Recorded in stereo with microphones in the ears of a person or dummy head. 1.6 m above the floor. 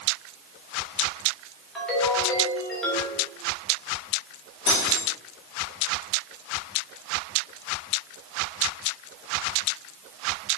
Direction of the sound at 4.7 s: 25° left (ahead or behind).